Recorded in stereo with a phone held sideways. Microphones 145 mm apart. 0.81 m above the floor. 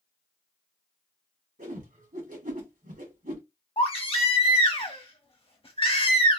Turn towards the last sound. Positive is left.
turn(degrees=40)  # may be behind; listen again after turning